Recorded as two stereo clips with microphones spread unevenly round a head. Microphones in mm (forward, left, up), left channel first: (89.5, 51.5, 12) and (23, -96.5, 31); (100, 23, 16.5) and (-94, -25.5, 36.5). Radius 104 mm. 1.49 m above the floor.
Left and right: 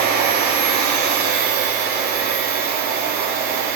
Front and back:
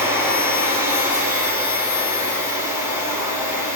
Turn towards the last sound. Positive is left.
turn(degrees=-85)